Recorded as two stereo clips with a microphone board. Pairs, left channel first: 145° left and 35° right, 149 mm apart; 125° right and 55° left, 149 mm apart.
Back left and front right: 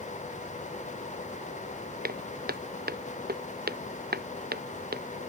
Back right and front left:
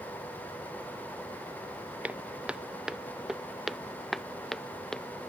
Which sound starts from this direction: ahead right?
Footsteps, at 2.0 s.